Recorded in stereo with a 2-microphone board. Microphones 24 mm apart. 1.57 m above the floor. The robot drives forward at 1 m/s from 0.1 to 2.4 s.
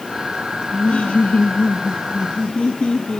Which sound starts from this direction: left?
Laughter, at 0.7 s.